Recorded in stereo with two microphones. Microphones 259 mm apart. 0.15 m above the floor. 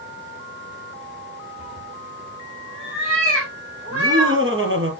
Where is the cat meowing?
30° right (ahead or behind), 4 m; by 4.4 s 65° right (ahead or behind), 4.5 m.